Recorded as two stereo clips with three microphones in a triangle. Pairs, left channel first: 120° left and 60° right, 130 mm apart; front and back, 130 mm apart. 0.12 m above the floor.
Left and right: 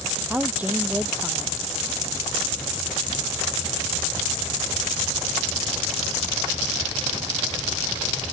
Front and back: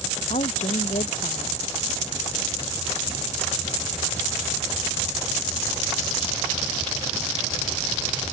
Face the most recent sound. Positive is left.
turn(degrees=20)